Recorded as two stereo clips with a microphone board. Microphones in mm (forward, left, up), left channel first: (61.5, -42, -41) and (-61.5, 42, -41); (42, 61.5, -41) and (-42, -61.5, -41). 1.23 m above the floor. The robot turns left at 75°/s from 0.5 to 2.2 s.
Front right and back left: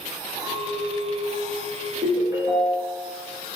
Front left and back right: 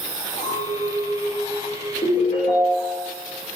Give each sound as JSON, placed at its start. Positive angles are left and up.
{"t": 0.4, "sound": "a clink", "azimuth_deg": -120, "distance_m": 1.0}
{"t": 2.0, "sound": "a ringtone", "azimuth_deg": 95, "distance_m": 0.8}